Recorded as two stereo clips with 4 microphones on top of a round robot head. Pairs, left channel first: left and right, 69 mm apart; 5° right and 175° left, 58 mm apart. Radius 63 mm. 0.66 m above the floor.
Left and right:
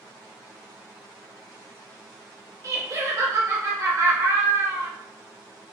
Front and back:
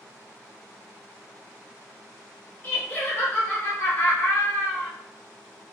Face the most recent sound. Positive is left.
turn(degrees=-60)